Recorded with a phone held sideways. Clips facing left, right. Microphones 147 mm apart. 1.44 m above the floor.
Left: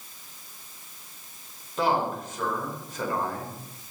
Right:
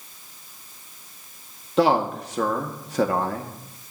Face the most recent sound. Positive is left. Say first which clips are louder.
# right 6 dB
turn(degrees=-80)